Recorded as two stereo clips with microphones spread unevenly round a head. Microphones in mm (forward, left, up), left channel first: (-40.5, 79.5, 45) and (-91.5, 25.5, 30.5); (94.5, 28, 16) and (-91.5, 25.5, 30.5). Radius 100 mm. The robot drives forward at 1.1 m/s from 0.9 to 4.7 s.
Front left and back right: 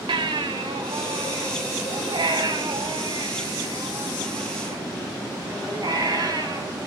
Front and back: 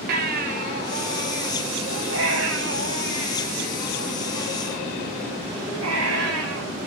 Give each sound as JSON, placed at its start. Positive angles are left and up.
{"t": 0.1, "sound": "a baby crying", "azimuth_deg": -135, "distance_m": 3.0}